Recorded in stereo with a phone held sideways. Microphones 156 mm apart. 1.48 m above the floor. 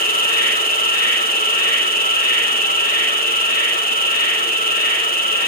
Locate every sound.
0.0 s an insect: 65° left (ahead or behind), 2.0 m